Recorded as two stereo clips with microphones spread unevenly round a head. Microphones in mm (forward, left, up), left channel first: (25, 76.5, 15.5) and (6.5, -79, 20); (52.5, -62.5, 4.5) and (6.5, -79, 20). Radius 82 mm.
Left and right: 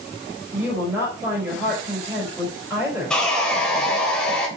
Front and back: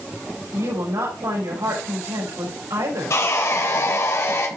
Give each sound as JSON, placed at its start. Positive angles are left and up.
{"t": 0.5, "sound": "a woman speaking", "azimuth_deg": -175, "distance_m": 5.5}
{"t": 3.1, "sound": "sawing", "azimuth_deg": 0, "distance_m": 3.5}